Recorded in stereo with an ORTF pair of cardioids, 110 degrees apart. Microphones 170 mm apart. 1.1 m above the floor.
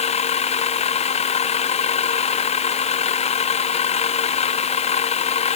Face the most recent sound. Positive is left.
turn(degrees=40)